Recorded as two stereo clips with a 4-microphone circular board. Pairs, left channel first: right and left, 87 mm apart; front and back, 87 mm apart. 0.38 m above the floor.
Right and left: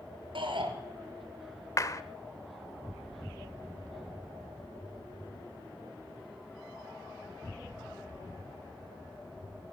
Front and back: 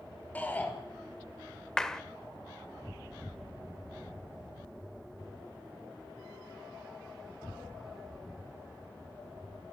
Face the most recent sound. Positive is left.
turn(degrees=-80)